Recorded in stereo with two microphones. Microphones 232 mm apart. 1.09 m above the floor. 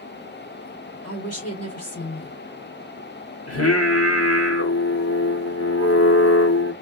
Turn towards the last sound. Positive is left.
turn(degrees=80)